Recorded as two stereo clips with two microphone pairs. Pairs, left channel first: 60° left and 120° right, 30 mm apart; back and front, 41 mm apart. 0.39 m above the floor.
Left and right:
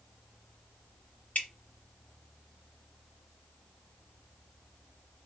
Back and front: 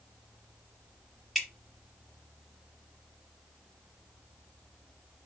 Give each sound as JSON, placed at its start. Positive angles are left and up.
{"t": 1.4, "sound": "dripping", "azimuth_deg": 90, "distance_m": 0.9}